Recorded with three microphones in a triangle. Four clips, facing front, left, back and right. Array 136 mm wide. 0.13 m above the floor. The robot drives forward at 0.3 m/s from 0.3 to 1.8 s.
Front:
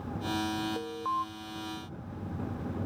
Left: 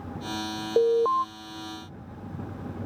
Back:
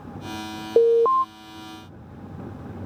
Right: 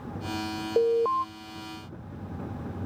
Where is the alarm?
170° left; by 1.2 s 175° left.